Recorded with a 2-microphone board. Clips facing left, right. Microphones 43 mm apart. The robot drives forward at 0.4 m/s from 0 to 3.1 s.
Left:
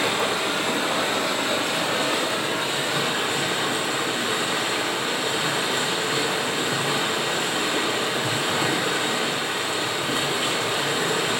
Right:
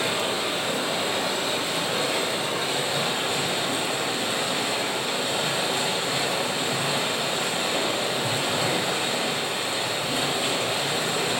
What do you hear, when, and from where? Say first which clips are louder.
0.0 s running water: left 3 dB; 65° left (ahead or behind), 3 m; by 11.4 s 50° left (ahead or behind), 3.5 m